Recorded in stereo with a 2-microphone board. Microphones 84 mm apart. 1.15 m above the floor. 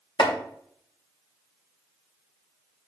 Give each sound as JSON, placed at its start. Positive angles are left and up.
{"t": 0.2, "sound": "chopping", "side_deg": 70, "distance_m": 2.0}